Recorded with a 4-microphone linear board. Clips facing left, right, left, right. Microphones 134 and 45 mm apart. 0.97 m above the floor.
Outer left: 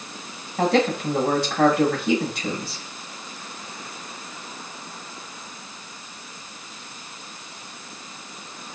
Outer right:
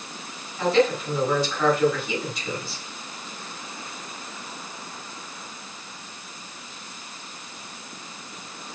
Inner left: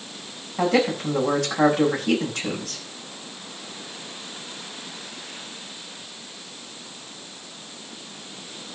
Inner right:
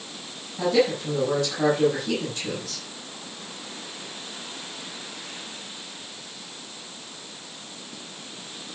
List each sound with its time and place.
0.6 s a man speaking: 80° left, 7.5 m